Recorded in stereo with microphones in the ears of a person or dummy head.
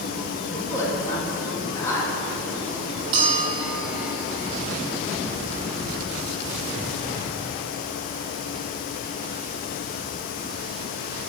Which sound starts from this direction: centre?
A woman speaking, at 0.5 s.